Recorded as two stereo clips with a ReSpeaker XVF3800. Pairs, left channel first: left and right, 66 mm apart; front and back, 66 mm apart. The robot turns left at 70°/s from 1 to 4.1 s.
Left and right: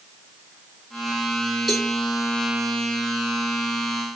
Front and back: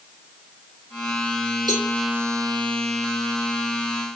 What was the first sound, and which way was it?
A cowbell, 175° right.